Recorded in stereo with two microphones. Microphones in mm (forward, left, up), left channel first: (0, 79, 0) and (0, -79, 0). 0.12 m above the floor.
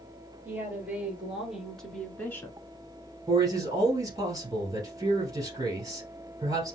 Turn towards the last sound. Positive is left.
turn(degrees=-20)  # may be behind; listen again after turning